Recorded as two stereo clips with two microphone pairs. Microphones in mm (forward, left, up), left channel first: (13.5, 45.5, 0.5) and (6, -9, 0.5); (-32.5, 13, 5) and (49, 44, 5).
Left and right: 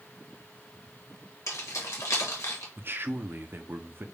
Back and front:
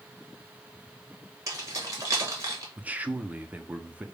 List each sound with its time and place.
1.5 s keys jangling: 75° left, 1.6 m
2.8 s a man speaking: 50° right, 0.6 m